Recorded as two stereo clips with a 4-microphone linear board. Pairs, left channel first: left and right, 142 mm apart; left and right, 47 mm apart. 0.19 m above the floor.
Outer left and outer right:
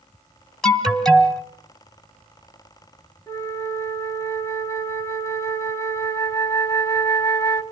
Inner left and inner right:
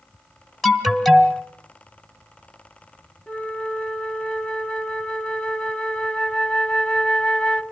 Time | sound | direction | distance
0.6 | an alarm | 5° left (ahead or behind) | 1.6 m
3.3 | a flute | 20° left (ahead or behind) | 1.3 m